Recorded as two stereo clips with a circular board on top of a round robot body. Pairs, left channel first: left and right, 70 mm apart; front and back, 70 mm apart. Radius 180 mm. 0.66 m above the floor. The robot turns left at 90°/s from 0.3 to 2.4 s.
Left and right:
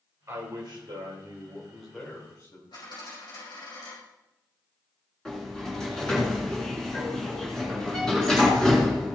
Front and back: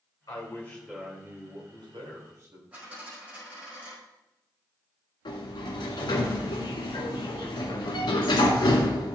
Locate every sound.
0.3 s a man speaking: 40° right, 4 m; by 2.6 s 130° left, 4 m
2.7 s a dropped coin: 110° left, 5.5 m
5.2 s a sliding door: 10° left, 2.0 m